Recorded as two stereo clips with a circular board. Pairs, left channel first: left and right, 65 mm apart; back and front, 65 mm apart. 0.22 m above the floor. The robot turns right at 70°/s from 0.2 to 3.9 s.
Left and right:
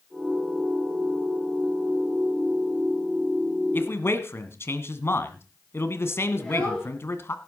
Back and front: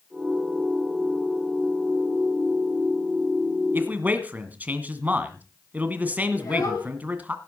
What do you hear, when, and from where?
3.7 s a man speaking: 45° left, 1.8 m; by 7.3 s 55° left, 1.8 m
6.3 s a child speaking: 170° left, 8 m